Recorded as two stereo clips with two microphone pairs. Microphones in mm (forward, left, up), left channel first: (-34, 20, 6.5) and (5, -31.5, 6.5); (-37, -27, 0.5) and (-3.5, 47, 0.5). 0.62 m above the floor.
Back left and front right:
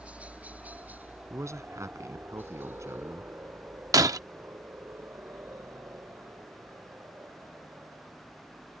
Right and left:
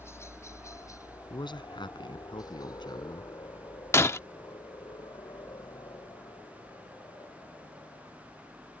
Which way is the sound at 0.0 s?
105° right.